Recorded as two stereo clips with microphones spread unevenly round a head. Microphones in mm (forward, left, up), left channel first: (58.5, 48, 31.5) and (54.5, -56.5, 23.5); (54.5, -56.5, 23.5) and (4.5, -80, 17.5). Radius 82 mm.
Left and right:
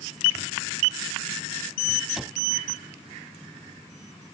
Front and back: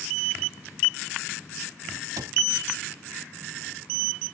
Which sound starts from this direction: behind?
A cupboard door, at 2.2 s.